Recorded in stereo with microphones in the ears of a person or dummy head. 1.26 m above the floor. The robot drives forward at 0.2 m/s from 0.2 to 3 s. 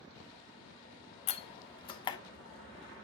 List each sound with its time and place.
1.3 s a door slam: 40° left (ahead or behind), 0.5 m; by 2.2 s 30° left (ahead or behind), 0.7 m